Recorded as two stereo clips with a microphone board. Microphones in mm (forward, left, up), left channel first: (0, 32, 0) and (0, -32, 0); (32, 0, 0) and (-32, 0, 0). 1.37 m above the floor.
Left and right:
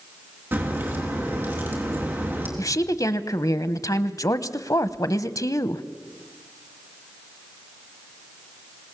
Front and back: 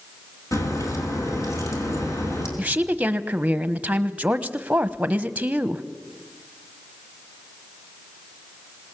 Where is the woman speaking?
110° left, 1.0 m.